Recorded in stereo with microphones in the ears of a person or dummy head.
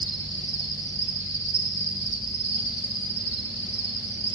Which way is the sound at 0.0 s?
25° right (ahead or behind).